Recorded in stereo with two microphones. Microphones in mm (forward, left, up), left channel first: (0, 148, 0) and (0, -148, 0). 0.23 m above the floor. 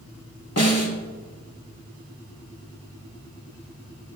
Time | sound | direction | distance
0.6 | a snare drum | 55° left (ahead or behind) | 1.2 m